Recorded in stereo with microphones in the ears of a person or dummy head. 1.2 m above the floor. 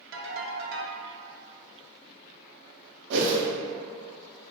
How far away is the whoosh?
About 0.5 m.